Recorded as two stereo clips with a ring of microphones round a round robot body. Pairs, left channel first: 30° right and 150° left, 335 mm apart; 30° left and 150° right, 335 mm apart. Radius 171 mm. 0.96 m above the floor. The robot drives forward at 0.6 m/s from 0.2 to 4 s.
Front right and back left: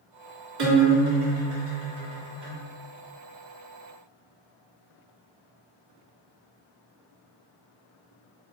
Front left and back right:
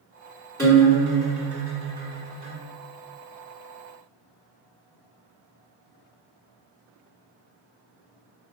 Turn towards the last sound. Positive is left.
turn(degrees=145)